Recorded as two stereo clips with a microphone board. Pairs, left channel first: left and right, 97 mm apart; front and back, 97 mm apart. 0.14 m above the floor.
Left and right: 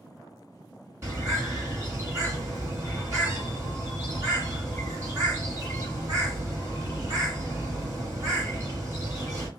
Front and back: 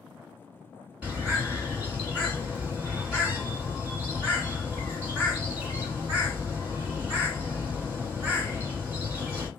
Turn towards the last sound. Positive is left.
turn(degrees=-115)